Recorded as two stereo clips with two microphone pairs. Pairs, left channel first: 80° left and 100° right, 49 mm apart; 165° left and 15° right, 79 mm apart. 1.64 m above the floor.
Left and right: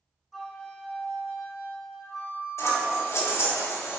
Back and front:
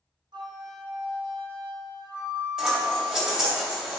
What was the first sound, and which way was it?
A flute, 10° right.